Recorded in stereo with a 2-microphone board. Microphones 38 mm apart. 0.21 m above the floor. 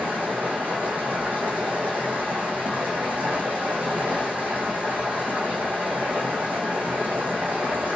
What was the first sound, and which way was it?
Running water, 50° right (ahead or behind).